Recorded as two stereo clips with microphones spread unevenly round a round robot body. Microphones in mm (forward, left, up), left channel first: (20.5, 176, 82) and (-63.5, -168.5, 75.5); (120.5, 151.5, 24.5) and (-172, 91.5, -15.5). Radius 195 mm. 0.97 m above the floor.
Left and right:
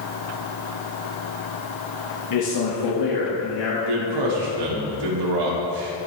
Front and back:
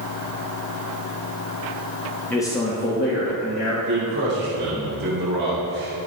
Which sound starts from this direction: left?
A man speaking, at 2.3 s.